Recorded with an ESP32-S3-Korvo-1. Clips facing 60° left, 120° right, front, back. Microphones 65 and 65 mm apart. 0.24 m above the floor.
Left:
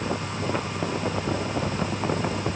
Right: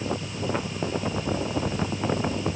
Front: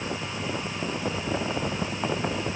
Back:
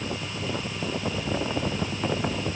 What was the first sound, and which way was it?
Only background noise.